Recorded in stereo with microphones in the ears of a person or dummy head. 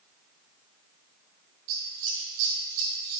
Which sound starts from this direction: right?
Scissors, at 1.7 s.